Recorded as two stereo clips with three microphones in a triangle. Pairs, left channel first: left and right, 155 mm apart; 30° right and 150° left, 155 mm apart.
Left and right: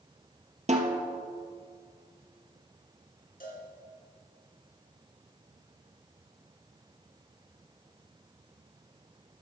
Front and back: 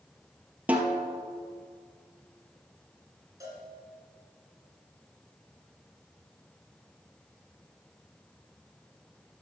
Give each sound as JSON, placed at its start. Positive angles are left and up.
{"t": 0.7, "sound": "a snare drum", "azimuth_deg": -130, "distance_m": 1.1}
{"t": 3.4, "sound": "a cowbell", "azimuth_deg": 85, "distance_m": 2.0}